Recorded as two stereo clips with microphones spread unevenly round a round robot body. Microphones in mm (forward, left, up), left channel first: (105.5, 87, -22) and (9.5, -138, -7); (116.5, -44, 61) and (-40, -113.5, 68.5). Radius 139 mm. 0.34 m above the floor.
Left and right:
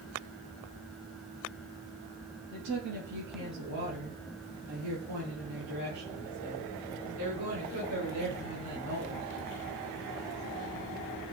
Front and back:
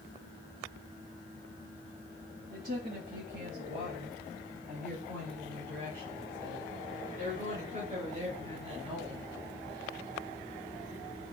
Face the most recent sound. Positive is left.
turn(degrees=-100)